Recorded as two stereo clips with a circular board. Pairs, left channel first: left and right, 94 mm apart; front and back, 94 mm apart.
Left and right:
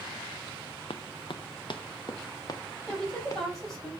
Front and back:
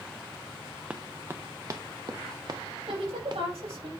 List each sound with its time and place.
0.9 s running footsteps: 105° left, 0.6 m; by 3.8 s 150° left, 1.9 m
2.9 s a woman speaking: straight behind, 5 m